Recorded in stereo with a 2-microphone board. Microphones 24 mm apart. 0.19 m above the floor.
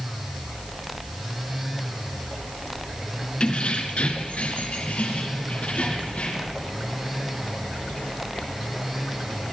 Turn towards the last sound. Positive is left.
turn(degrees=60)  # may be behind; listen again after turning